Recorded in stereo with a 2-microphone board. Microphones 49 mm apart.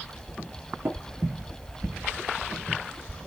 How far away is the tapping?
About 1.4 m.